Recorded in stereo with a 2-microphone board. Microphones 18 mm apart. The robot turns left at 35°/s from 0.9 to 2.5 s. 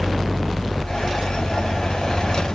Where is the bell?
I don't hear a bell.